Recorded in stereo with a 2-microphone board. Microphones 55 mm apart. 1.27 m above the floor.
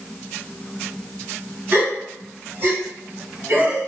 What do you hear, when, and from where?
1.7 s a gasp: 45° right (ahead or behind), 2.0 m